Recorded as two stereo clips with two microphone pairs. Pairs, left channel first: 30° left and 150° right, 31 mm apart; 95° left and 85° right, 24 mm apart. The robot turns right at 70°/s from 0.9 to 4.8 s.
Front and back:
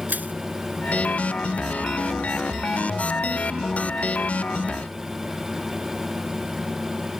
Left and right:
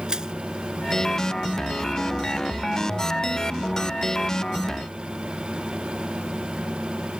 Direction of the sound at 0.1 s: 140° right.